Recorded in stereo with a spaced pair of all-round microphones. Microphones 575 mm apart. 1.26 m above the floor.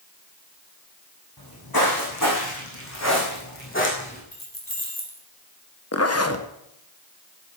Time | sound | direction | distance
1.4 | footsteps | 40° left (ahead or behind) | 5 m
4.3 | keys jangling | 35° left (ahead or behind) | 4 m
5.9 | a zipper | 25° left (ahead or behind) | 1.0 m